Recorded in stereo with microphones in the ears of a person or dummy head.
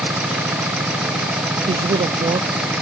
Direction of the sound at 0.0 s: 5° right (ahead or behind).